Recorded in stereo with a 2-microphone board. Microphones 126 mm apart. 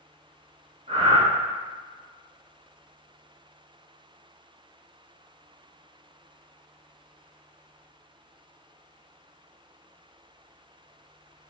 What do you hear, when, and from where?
0.9 s breathing: 60° right (ahead or behind), 1.2 m